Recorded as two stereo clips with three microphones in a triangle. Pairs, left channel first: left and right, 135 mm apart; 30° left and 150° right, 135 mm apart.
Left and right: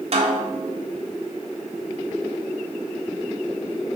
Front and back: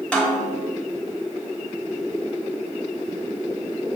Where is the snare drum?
50° right, 1.1 m.